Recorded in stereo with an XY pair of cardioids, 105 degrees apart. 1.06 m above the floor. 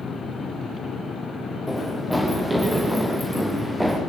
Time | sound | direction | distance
1.7 | running footsteps | 5° left | 9 m